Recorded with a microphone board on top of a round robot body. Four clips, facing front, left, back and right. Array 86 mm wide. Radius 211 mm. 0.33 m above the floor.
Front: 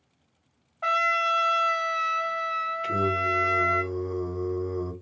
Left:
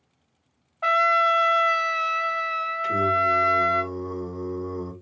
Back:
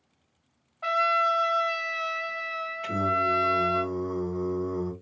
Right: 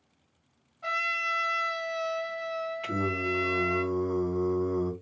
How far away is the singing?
About 2.5 m.